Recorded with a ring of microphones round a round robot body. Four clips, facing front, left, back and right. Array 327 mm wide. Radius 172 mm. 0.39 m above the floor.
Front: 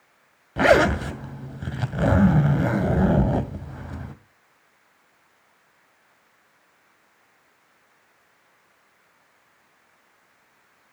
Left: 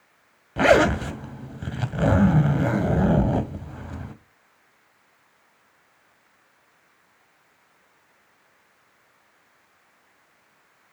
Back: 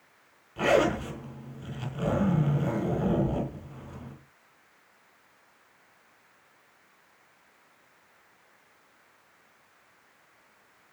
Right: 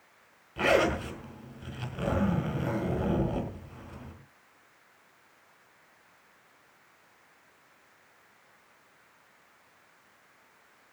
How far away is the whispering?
No whispering in this recording.